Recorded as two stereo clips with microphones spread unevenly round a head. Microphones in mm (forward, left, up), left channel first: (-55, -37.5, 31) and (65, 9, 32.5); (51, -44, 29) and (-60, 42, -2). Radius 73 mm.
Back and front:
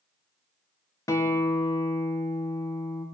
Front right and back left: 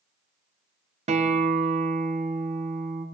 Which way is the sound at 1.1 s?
140° left.